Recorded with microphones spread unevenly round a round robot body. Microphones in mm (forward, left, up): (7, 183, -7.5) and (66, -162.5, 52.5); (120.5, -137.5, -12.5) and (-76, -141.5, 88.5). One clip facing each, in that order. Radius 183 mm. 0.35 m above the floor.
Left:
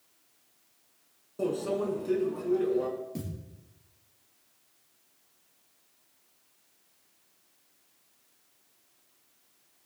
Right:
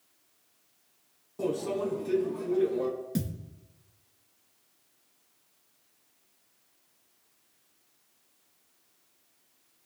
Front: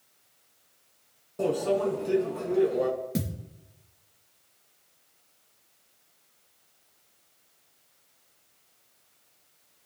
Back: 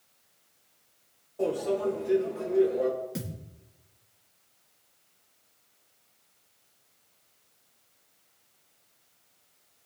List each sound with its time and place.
1.4 s a microwave: 5° left, 4 m
3.1 s a thud: 35° right, 3 m